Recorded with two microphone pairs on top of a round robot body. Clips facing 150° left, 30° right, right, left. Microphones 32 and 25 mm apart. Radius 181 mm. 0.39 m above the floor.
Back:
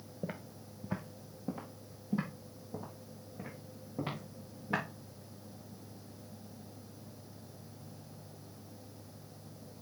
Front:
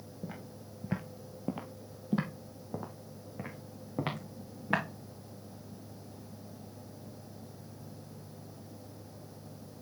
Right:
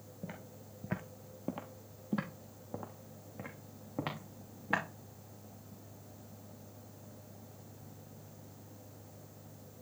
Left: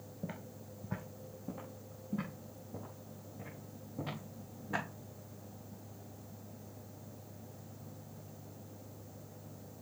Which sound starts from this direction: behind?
Footsteps, at 0.2 s.